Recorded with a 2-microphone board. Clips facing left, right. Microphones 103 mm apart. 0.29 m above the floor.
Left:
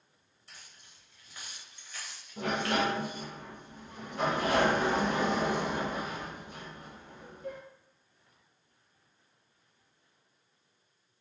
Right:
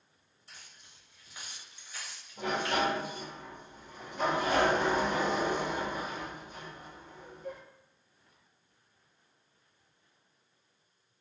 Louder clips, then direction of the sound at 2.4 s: Left 1 dB; 70° left (ahead or behind).